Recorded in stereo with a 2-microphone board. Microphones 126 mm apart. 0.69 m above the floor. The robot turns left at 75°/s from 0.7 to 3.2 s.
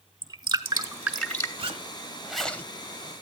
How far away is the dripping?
About 1.5 m.